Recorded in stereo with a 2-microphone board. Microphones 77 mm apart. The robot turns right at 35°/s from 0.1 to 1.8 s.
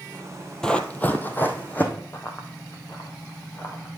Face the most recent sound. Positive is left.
turn(degrees=40)  # may be behind; listen again after turning